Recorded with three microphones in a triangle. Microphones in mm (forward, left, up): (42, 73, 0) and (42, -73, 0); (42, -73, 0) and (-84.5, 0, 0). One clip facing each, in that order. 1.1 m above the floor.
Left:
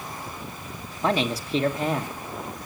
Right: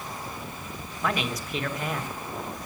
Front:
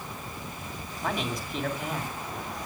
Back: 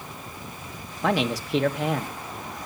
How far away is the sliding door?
No sliding door in this recording.